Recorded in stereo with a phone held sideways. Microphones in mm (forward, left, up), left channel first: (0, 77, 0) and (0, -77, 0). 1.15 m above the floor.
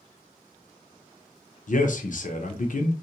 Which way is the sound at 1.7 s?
60° left (ahead or behind).